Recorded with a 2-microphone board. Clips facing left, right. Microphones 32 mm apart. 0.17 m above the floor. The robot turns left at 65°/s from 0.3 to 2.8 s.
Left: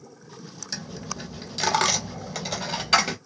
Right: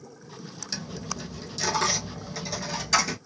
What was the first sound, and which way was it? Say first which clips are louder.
A dropped coin: even; 10° right (ahead or behind).